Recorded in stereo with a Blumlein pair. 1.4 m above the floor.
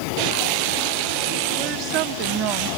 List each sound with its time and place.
1.6 s a woman speaking: 40° right, 1.2 m